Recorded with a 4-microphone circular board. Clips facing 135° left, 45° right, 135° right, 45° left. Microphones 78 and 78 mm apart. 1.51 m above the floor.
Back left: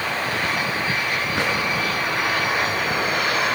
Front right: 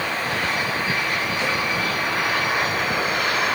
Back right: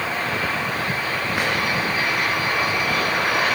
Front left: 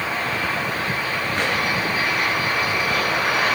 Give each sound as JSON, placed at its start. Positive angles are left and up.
{"t": 1.4, "sound": "a drawer", "azimuth_deg": 145, "distance_m": 10.0}